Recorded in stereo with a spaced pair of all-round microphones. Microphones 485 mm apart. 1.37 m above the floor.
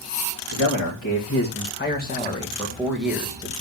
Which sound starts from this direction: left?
A man speaking, at 0.5 s.